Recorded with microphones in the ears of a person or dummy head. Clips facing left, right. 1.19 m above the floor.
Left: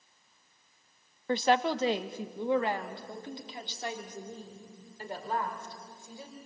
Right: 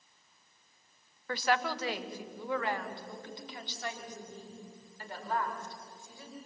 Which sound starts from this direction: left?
A woman speaking, at 1.3 s.